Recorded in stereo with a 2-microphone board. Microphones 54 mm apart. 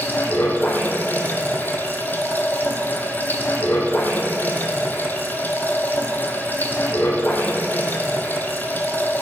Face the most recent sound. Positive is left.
turn(degrees=35)  # may be behind; listen again after turning